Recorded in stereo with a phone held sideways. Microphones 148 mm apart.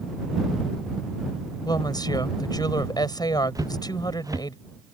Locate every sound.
1.6 s a woman speaking: 25° left (ahead or behind)
3.5 s footsteps: 25° right (ahead or behind)